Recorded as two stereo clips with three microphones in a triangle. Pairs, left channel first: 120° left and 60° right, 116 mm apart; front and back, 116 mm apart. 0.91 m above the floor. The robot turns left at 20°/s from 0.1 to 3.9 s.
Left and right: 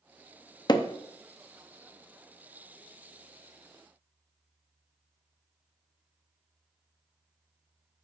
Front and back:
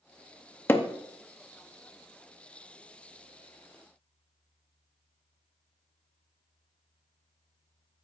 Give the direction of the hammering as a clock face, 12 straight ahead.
10 o'clock.